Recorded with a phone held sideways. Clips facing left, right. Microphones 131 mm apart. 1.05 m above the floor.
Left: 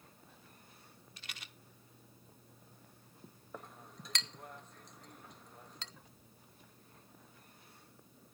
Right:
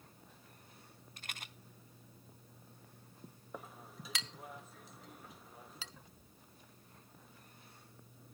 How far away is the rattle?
About 1.0 m.